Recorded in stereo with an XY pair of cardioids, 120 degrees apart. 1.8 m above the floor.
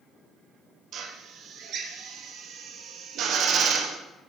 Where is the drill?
60° right, 1.4 m.